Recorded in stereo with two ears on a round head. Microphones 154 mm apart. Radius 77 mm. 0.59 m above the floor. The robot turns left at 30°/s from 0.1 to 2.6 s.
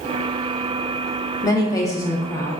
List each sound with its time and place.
1.4 s a woman speaking: 20° left (ahead or behind), 0.6 m; by 2.6 s 15° left (ahead or behind), 0.6 m